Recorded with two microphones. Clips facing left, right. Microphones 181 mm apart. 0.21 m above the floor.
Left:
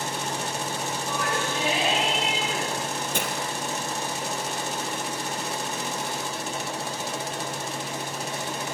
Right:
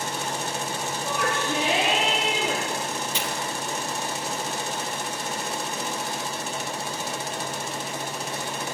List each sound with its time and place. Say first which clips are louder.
1.0 s a shout: right 3 dB; 75° right (ahead or behind), 6 m
3.1 s breaking glass: left 1 dB; 50° left (ahead or behind), 2.5 m